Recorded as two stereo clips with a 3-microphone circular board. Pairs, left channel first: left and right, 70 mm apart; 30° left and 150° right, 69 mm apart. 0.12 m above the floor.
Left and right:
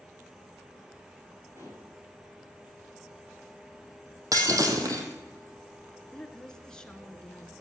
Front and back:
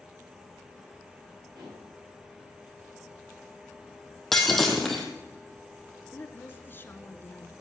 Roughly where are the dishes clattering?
Behind right.